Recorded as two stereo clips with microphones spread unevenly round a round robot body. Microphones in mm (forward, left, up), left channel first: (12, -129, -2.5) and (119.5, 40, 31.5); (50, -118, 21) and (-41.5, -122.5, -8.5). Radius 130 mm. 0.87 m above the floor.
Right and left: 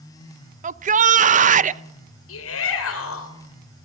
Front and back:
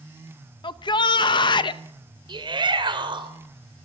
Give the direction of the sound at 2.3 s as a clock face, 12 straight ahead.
5 o'clock.